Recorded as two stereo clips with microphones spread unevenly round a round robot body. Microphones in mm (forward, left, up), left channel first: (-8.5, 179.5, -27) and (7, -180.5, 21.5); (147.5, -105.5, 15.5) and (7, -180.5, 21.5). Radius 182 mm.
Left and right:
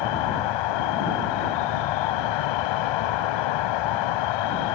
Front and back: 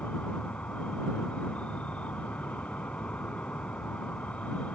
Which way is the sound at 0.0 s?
115° left.